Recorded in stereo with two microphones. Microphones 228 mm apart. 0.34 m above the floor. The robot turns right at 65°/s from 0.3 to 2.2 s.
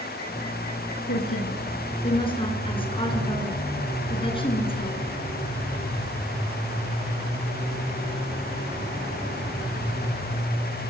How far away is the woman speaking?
About 5 m.